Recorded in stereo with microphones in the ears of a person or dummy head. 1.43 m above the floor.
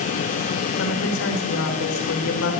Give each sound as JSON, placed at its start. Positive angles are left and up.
{"t": 0.8, "sound": "a woman speaking", "side_deg": 70, "distance_m": 4.5}